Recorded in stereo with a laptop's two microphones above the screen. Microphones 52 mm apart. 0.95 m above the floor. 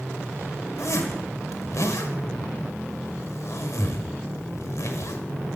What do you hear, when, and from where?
0.8 s a zipper: 70° left (ahead or behind), 1.3 m